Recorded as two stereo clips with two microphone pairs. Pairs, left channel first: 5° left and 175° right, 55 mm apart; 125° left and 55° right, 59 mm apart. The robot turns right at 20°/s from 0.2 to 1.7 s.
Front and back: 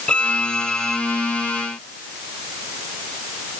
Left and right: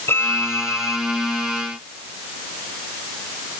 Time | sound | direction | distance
0.1 | a violin | 75° left | ?